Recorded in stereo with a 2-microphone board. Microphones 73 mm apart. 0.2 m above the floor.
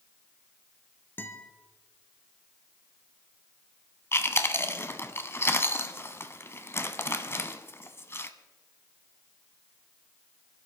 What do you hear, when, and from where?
1.2 s a guitar: 30° left (ahead or behind), 1.9 m
4.1 s chewing: 35° left (ahead or behind), 0.9 m